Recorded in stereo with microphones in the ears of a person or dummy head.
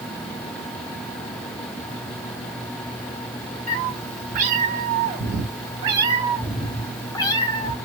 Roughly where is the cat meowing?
Right.